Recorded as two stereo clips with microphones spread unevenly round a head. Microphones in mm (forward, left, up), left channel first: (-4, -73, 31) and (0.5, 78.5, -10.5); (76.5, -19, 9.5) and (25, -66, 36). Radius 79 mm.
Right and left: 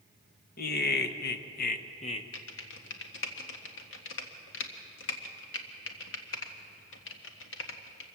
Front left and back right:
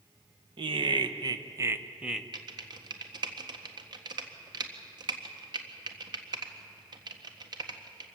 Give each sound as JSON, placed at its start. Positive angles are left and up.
{"t": 0.6, "sound": "laughter", "azimuth_deg": -125, "distance_m": 1.5}
{"t": 2.3, "sound": "typing on a keyboard", "azimuth_deg": -105, "distance_m": 1.6}